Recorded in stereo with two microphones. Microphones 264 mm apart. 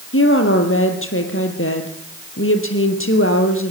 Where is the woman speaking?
50° left (ahead or behind), 3 m.